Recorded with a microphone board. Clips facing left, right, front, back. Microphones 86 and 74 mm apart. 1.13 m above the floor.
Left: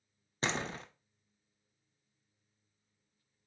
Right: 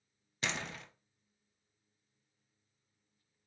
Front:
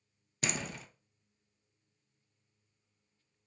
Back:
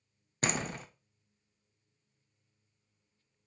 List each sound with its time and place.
0.4 s a door slam: 140° left, 0.6 m